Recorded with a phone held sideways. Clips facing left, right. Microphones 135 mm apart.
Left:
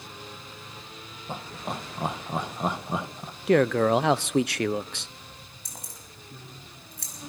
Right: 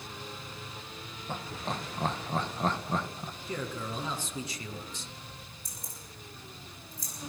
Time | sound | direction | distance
1.3 | laughter | 10° left (ahead or behind) | 1.2 m
3.5 | a man speaking | 75° left (ahead or behind) | 0.7 m
5.7 | keys jangling | 75° left (ahead or behind) | 6 m